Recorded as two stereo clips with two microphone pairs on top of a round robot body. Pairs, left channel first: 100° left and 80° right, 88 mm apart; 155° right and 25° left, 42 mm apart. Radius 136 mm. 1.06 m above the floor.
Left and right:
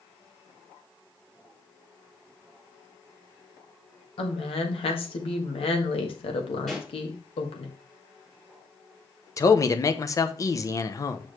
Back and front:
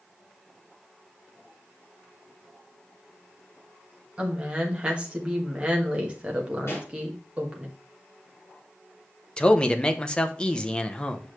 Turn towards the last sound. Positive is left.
turn(degrees=145)